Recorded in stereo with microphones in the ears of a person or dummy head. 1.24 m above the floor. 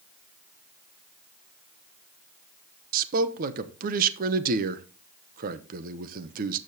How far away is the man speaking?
About 1.1 m.